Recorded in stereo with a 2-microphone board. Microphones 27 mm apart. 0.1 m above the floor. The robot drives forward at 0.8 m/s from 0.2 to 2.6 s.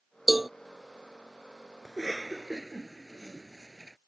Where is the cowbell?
10° right (ahead or behind).